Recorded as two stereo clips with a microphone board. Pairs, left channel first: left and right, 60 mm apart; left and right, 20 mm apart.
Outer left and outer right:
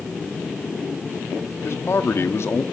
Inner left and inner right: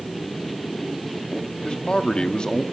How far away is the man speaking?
About 1.2 m.